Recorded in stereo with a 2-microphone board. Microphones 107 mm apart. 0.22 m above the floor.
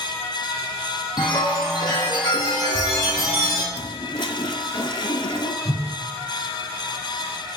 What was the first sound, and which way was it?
A chime, 40° left (ahead or behind).